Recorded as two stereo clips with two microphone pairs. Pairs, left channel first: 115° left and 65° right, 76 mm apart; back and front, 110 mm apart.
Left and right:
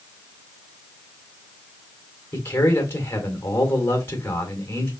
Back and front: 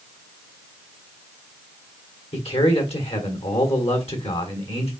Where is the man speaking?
170° left, 1.4 m.